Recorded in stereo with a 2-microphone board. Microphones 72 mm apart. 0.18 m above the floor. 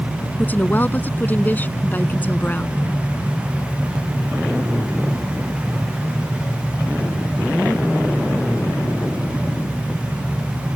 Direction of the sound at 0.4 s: 25° left (ahead or behind).